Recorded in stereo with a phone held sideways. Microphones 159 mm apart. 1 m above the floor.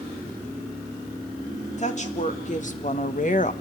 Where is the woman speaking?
45° left (ahead or behind), 2.5 m; by 3.5 s 50° left (ahead or behind), 1.0 m.